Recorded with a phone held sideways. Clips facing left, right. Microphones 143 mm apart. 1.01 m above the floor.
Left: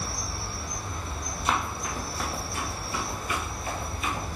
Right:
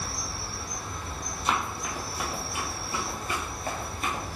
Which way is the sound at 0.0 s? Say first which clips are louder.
Left 1 dB; 45° left (ahead or behind).